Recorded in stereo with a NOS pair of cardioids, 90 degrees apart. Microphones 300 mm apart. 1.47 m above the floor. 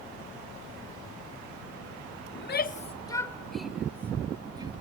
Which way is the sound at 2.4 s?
45° left.